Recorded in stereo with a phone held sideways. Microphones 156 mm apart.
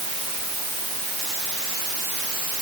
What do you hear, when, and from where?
Only background noise.